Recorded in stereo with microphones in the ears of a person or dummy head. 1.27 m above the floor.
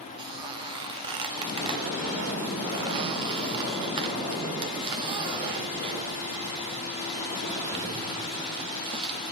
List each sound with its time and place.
0.2 s a squeak: 25° right (ahead or behind), 1.0 m